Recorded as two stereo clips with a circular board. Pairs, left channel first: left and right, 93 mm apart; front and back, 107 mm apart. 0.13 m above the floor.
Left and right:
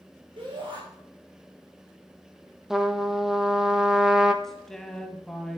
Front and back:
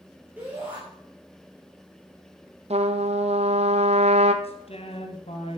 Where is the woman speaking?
5° left, 2.5 m.